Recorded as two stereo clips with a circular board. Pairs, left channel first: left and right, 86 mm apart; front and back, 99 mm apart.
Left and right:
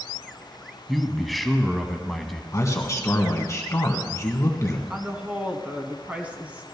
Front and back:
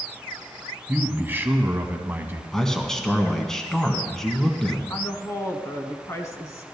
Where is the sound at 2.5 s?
85° left, 1.6 m.